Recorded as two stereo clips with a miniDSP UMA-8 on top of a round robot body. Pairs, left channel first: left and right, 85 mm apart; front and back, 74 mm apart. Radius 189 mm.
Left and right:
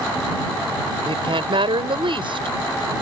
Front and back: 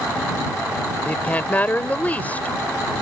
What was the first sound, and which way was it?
A woman speaking, 70° right.